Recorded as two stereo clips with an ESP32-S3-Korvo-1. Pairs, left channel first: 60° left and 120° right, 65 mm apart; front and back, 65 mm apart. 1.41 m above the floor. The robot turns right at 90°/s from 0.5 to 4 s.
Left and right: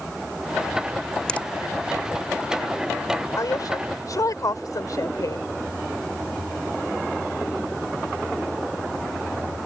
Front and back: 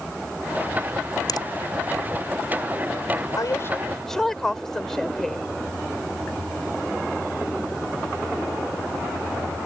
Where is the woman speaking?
25° left; by 5.5 s 85° left.